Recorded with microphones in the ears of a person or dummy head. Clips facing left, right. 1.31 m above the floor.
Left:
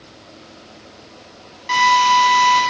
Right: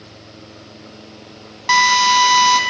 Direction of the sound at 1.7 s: 70° right (ahead or behind).